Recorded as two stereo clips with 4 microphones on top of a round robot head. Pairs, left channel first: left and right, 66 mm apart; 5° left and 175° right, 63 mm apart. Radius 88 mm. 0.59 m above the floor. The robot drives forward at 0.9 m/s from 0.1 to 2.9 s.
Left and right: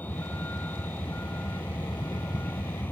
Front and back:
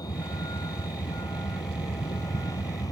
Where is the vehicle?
25° left; by 2.9 s 30° left.